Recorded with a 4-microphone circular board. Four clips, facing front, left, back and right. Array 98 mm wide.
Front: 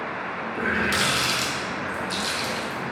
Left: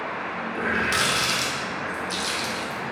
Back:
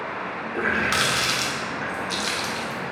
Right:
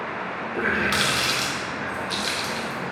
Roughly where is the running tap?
Behind right.